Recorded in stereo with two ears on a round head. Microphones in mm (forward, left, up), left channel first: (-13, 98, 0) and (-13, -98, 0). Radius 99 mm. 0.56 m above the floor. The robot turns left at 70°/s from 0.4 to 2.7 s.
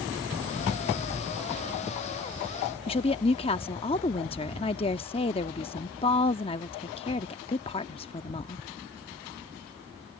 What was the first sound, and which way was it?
A woman speaking, 25° left (ahead or behind).